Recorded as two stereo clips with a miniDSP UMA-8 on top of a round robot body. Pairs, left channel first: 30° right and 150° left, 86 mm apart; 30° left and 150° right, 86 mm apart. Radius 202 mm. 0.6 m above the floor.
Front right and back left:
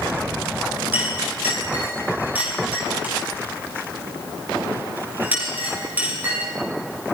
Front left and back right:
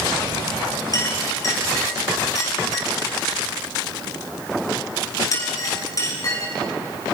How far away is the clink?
About 7.5 m.